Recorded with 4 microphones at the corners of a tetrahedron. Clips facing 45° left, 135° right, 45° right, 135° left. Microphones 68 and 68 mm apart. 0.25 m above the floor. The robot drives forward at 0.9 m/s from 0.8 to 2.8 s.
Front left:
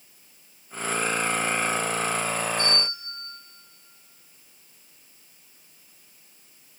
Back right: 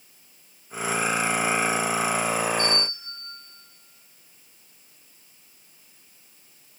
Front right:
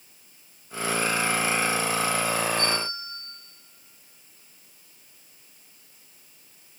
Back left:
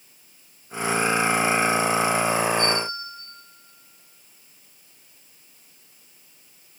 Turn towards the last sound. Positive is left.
turn(degrees=45)